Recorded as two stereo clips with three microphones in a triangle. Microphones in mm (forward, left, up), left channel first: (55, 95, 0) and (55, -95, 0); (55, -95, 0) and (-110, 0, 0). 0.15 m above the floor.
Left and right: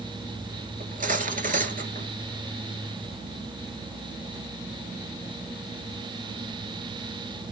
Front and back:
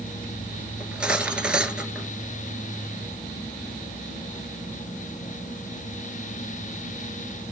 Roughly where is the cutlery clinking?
Behind right.